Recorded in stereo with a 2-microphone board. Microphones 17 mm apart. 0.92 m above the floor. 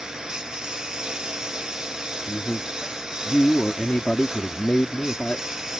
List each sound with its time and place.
0.0 s a lawn mower: 45° right (ahead or behind); by 5.8 s 35° right (ahead or behind)
2.3 s a man speaking: 60° left (ahead or behind)